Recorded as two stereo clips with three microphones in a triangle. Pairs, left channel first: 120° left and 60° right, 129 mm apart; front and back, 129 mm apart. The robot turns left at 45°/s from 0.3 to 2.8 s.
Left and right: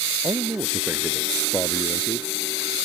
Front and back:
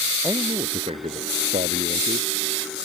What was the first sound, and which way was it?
A man speaking, 115° right.